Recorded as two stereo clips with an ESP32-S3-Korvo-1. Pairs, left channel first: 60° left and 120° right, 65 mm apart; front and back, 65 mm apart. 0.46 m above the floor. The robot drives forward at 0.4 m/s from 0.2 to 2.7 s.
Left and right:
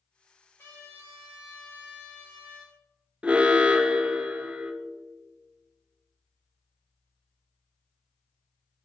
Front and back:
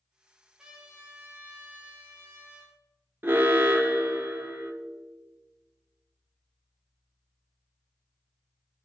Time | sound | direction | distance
0.6 | a trumpet | 105° left | 2 m
3.2 | an alarm | 175° right | 0.8 m